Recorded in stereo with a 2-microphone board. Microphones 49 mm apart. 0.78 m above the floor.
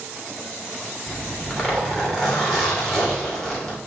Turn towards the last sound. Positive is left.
turn(degrees=5)  # may be behind; listen again after turning